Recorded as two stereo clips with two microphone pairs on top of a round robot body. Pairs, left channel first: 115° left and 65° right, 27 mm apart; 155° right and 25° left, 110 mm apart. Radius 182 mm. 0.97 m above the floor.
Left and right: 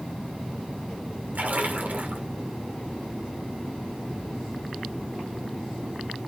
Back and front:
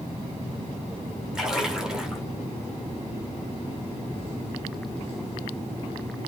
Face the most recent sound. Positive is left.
turn(degrees=-55)